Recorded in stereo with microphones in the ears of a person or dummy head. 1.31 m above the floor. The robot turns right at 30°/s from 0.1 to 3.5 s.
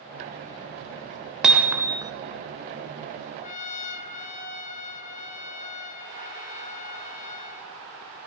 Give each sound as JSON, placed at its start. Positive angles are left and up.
{"t": 1.4, "sound": "hammering", "side_deg": -5, "distance_m": 1.1}
{"t": 3.4, "sound": "a trumpet", "side_deg": 40, "distance_m": 2.5}